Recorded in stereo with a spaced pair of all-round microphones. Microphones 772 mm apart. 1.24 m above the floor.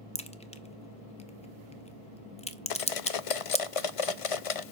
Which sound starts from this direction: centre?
A crack, at 0.1 s.